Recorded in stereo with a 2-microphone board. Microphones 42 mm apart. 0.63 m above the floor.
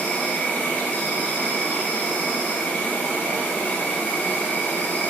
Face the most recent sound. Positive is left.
turn(degrees=55)  # may be behind; listen again after turning